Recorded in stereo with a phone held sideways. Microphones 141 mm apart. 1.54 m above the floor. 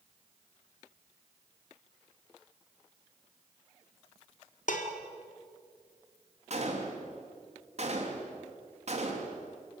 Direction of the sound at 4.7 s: 65° left (ahead or behind).